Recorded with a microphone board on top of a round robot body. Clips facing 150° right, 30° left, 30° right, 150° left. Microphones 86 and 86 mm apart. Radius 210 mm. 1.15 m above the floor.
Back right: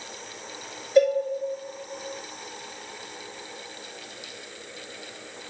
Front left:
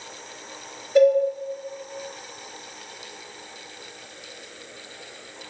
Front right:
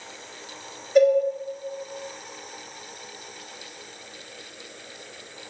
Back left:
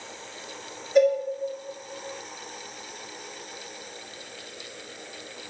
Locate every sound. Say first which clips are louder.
0.9 s a cowbell: front left 3 dB, front right 3 dB; 55° left, 1.2 m